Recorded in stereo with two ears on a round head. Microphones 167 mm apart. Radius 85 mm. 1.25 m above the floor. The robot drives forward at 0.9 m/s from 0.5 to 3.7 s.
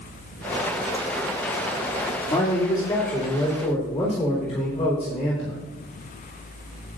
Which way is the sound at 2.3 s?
25° left (ahead or behind).